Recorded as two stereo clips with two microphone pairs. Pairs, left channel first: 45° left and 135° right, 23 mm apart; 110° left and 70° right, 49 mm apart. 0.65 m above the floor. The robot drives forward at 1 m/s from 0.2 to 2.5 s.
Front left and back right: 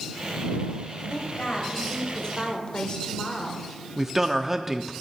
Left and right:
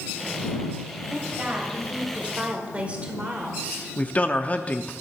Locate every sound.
1.1 s a woman speaking: 5° right, 3 m
4.0 s a man speaking: 160° left, 0.7 m